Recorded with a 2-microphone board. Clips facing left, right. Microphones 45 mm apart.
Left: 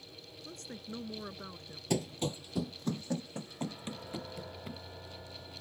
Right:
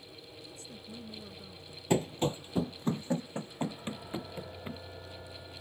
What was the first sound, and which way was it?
A woman speaking, 60° left (ahead or behind).